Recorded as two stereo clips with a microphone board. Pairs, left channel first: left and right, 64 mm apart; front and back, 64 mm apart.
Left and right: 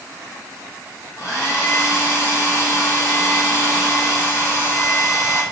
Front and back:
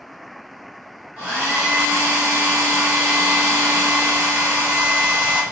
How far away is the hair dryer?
About 2 m.